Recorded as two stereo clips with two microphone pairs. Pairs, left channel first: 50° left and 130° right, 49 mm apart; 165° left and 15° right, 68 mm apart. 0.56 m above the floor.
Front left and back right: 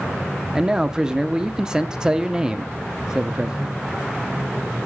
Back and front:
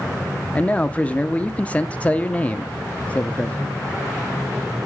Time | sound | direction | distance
0.6 | a man speaking | 175° left | 0.6 m